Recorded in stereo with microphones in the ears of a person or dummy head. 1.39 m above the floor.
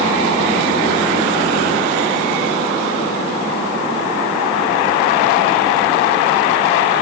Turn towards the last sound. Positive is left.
No sound to turn to.